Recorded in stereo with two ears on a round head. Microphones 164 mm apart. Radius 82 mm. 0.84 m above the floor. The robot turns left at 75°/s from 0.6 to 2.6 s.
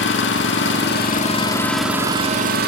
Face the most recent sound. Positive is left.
turn(degrees=-60)